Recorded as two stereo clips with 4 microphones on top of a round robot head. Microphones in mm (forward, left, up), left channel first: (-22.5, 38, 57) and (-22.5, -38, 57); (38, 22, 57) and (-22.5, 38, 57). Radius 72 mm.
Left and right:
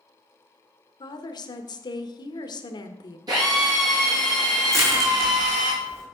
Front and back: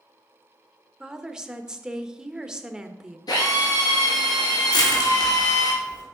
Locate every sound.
1.0 s a woman speaking: 85° left, 1.3 m
3.3 s a drill: 45° right, 4.5 m
4.7 s crushing: 30° right, 3.5 m